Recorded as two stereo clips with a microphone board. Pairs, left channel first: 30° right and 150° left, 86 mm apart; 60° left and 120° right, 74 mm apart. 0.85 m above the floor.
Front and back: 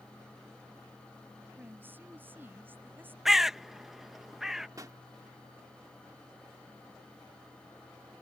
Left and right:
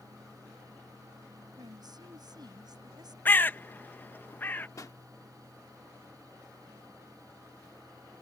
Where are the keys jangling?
No keys jangling in this recording.